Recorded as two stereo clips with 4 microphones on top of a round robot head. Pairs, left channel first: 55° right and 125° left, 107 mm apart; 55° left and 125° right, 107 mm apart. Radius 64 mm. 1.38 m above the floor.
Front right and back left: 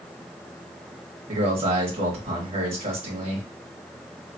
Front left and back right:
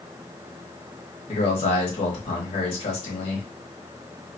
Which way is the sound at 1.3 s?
90° left.